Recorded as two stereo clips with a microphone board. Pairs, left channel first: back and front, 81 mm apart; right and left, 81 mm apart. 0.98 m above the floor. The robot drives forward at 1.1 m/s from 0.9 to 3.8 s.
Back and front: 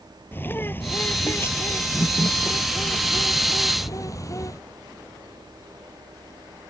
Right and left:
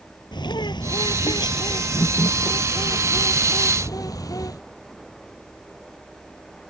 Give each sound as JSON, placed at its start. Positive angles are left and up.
{"t": 0.3, "sound": "a bird", "azimuth_deg": -115}